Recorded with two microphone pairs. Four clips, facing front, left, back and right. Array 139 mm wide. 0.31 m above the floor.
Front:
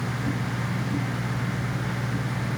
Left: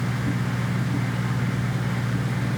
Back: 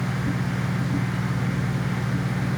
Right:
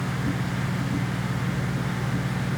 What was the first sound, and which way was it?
Only background noise.